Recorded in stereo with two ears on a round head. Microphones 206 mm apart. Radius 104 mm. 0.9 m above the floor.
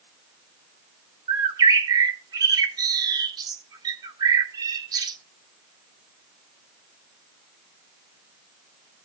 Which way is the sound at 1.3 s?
15° right (ahead or behind).